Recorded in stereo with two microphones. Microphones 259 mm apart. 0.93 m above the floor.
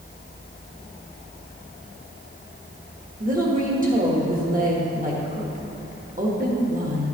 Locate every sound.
3.2 s a woman speaking: 30° right (ahead or behind), 1.4 m